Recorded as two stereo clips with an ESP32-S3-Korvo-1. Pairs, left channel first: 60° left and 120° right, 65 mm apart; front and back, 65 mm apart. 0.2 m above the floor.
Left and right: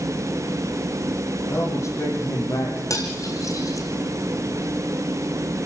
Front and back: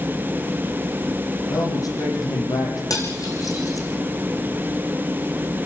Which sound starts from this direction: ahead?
A man speaking, at 1.5 s.